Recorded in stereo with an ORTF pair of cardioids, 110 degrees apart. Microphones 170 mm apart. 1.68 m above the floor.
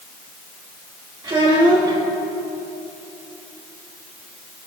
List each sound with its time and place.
1.2 s a child speaking: 25° right, 2.5 m